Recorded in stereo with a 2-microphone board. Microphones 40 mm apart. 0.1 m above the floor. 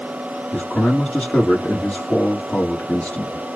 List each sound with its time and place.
0.5 s a man speaking: 35° left (ahead or behind), 2.5 m